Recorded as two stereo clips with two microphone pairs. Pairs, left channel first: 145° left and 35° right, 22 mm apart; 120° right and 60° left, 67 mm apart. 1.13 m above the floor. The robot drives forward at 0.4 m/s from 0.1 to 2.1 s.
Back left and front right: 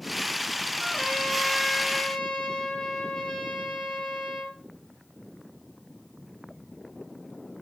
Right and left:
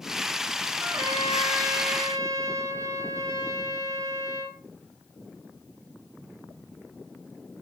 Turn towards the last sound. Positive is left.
turn(degrees=90)